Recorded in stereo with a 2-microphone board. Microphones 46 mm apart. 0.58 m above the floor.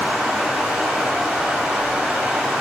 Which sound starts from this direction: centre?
Running water, at 0.0 s.